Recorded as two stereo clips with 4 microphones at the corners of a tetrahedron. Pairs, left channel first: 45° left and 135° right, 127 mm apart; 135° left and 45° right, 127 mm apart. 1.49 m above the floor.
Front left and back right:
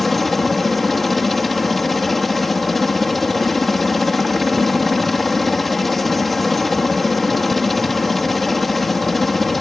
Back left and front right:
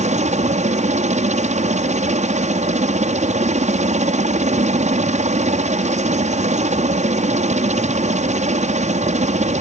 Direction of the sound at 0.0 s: 45° right.